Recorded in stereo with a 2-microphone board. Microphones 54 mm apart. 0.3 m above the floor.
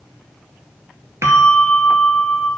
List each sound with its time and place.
1.2 s a bell: 55° right (ahead or behind), 1.1 m